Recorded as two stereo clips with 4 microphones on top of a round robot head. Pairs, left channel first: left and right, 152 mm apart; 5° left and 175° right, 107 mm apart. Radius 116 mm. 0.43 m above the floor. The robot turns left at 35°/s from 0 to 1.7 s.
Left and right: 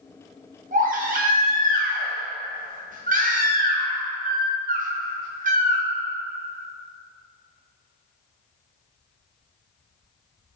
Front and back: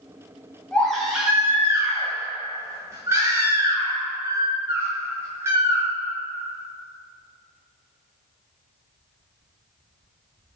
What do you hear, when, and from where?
0.7 s a baby crying: 70° right, 1.5 m; by 5.8 s 105° right, 1.5 m